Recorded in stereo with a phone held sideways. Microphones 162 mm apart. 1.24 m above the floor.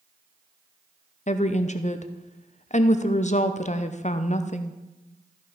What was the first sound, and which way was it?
A woman speaking, 45° left (ahead or behind).